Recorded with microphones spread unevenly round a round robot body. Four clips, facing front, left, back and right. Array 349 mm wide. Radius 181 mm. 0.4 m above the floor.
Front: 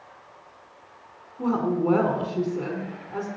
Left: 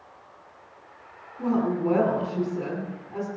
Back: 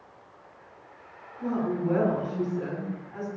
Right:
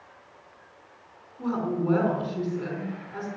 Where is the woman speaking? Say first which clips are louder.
Left 3 dB, front 4 dB; 10° left, 5 m.